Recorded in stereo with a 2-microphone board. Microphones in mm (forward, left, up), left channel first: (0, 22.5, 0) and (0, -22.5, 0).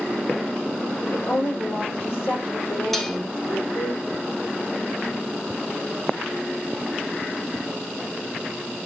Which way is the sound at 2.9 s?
5° left (ahead or behind).